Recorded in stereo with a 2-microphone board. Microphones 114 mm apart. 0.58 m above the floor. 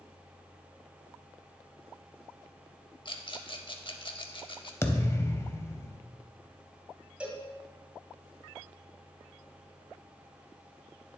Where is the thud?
25° left (ahead or behind), 0.6 m.